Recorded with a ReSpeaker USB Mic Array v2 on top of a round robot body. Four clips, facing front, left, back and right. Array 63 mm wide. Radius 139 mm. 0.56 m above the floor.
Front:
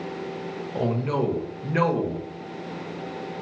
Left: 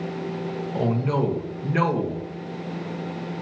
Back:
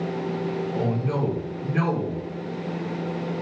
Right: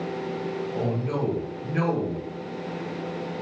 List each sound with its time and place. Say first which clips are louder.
0.7 s a man speaking: left 6 dB, front 4 dB; 40° left, 1.2 m